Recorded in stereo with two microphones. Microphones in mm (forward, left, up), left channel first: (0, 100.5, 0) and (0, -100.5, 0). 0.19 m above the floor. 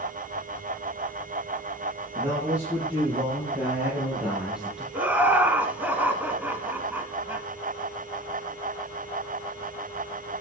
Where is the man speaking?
10° right (ahead or behind), 7 m; by 4.8 s centre (ahead or behind), 3.5 m.